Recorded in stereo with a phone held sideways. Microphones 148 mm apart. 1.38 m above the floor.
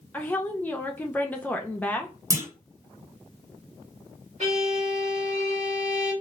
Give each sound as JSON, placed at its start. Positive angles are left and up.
{"t": 0.1, "sound": "a woman speaking", "side_deg": 10, "distance_m": 0.6}
{"t": 2.3, "sound": "a clunk", "side_deg": -25, "distance_m": 1.2}
{"t": 4.4, "sound": "a violin", "side_deg": -50, "distance_m": 1.4}